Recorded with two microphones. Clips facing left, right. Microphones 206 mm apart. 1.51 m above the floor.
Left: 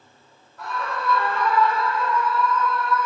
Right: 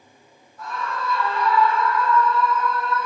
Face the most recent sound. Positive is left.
turn(degrees=-30)  # may be behind; listen again after turning